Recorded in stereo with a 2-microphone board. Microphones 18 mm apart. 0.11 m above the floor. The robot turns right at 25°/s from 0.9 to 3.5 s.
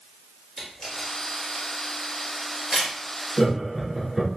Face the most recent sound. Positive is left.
turn(degrees=-15)  # may be behind; listen again after turning